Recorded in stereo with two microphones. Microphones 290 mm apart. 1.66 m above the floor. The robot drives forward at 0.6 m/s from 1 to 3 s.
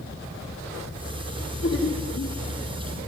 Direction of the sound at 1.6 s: 40° left (ahead or behind).